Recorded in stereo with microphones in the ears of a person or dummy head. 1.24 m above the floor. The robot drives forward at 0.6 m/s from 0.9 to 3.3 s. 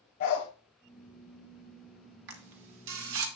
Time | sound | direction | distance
0.2 | a dog barking | 45° left (ahead or behind) | 1.4 m
2.3 | a camera shutter | 60° right (ahead or behind) | 1.8 m